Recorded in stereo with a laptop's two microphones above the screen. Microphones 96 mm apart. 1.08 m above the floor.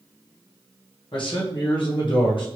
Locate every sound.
1.1 s a man speaking: 60° left (ahead or behind), 1.0 m